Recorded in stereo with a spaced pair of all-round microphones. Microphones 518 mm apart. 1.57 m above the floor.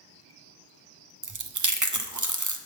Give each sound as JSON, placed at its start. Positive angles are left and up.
{"t": 1.2, "sound": "chewing", "side_deg": -35, "distance_m": 0.5}